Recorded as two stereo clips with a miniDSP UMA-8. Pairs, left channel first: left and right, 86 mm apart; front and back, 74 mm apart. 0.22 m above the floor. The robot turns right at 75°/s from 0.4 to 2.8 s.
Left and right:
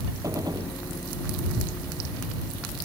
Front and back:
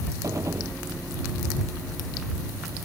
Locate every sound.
0.2 s a gunshot: 135° right; by 0.8 s 110° right